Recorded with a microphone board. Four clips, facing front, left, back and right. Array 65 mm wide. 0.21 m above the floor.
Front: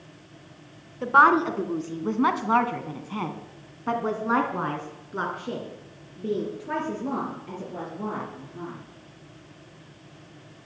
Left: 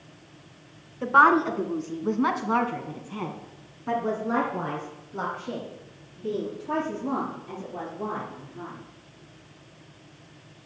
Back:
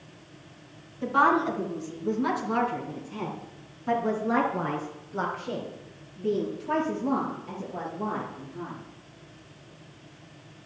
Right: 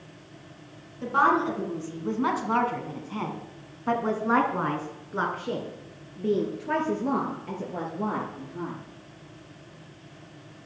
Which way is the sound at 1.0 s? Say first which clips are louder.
Left 4 dB, front 5 dB; 35° left.